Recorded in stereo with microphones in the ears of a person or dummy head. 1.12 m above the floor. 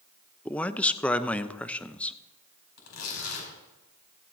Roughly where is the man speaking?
Centre.